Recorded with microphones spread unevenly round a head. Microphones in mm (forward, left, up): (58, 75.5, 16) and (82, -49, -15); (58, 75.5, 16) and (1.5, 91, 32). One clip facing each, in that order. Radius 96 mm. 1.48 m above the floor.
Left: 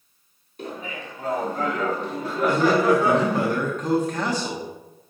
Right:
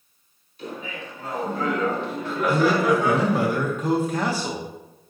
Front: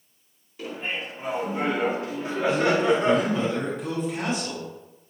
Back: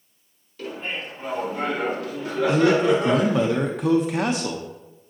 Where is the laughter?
60° left, 4 m; by 3.5 s 40° left, 3.5 m.